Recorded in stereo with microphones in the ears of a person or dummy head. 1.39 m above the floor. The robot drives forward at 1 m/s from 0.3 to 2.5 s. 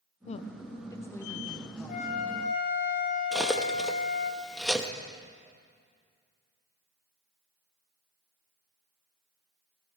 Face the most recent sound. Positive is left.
turn(degrees=-5)  # may be behind; listen again after turning